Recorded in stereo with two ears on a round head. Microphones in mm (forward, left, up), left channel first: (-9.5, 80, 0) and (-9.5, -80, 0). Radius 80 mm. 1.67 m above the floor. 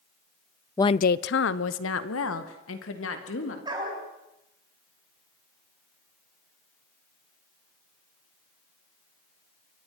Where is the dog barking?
25° right (ahead or behind), 5.5 m.